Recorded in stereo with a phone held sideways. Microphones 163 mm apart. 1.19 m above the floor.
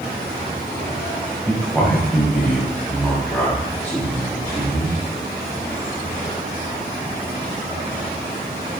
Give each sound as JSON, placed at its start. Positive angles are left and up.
{"t": 1.5, "sound": "a man speaking", "side_deg": 5, "distance_m": 5.0}